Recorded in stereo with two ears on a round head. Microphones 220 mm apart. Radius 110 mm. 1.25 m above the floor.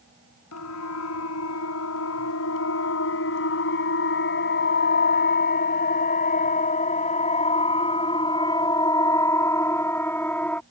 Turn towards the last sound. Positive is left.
turn(degrees=5)  # may be behind; listen again after turning